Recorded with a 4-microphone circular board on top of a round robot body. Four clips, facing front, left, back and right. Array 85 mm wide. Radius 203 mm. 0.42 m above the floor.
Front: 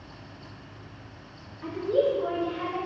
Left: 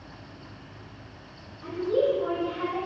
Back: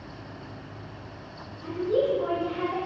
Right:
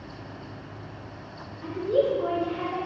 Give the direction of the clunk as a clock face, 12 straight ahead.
No clunk in this recording.